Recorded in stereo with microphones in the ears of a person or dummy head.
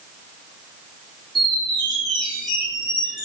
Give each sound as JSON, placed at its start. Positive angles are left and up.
{"t": 1.4, "sound": "a squeak", "side_deg": -5, "distance_m": 3.0}